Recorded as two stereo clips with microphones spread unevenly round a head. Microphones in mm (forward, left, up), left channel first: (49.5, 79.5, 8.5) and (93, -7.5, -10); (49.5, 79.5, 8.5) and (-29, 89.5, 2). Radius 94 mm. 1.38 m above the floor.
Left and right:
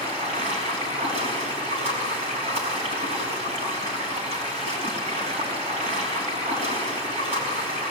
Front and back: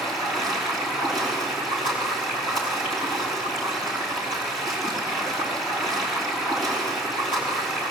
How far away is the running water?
About 5.5 m.